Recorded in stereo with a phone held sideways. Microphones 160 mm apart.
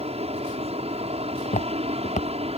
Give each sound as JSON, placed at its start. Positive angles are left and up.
{"t": 0.0, "sound": "an aircraft", "side_deg": -40}
{"t": 1.4, "sound": "footsteps", "side_deg": 50}